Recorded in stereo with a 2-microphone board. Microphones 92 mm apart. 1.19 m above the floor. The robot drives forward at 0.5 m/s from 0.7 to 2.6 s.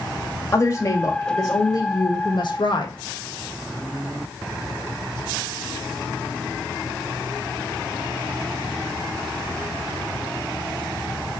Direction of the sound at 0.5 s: 35° left (ahead or behind).